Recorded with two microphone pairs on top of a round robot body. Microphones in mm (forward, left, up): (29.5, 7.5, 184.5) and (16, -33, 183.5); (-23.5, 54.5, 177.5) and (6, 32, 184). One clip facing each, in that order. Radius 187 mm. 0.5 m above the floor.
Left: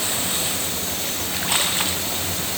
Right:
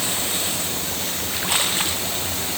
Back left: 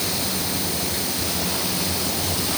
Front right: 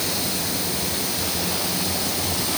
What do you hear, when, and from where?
Only background noise.